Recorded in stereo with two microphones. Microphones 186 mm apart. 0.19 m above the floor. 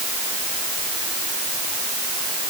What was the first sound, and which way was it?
Only background noise.